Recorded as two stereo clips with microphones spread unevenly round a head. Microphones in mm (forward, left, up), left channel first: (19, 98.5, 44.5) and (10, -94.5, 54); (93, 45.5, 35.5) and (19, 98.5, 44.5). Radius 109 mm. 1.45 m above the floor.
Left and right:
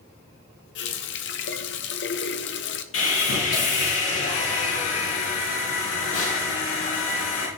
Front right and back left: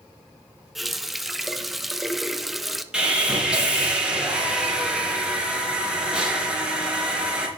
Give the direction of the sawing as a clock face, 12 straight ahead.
10 o'clock.